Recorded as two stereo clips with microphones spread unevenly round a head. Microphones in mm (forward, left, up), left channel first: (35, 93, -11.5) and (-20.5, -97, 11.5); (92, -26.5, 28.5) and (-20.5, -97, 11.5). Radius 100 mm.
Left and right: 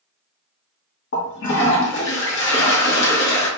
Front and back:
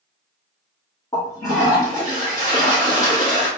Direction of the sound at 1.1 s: 105° left.